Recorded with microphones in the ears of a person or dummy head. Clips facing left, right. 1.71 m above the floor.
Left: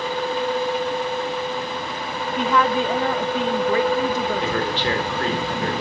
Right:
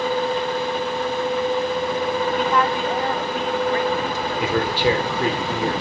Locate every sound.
2.4 s a woman speaking: 65° left (ahead or behind), 1.6 m
4.4 s a man speaking: 10° right (ahead or behind), 5 m